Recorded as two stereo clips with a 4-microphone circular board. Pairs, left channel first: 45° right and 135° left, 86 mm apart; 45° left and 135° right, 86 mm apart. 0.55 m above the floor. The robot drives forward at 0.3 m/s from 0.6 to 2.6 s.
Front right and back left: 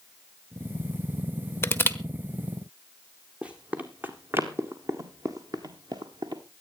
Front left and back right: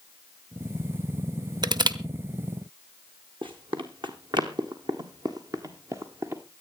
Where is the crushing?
105° right, 0.9 m; by 2.0 s 110° right, 1.0 m.